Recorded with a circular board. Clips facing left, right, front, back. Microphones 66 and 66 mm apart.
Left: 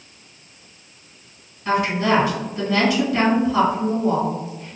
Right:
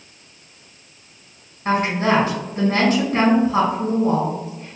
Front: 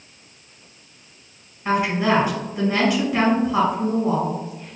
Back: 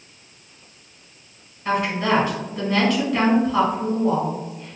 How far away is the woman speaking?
About 2.0 m.